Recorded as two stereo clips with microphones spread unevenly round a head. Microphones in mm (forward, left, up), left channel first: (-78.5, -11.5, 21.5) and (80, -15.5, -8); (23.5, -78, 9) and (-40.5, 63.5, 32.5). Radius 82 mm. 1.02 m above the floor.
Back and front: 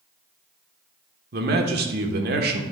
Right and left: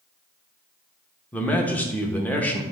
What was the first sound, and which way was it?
A man speaking, 10° left.